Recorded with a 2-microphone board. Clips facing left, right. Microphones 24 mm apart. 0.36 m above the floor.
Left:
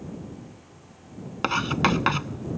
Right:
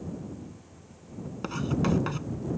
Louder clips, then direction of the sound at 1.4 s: Left 6 dB; 55° left (ahead or behind).